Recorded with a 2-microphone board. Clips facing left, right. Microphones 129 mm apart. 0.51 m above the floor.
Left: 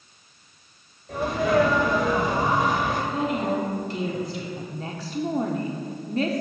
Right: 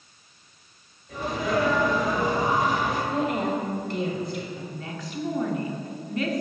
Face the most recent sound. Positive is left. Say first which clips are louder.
# left 2 dB
turn(degrees=35)  # may be behind; listen again after turning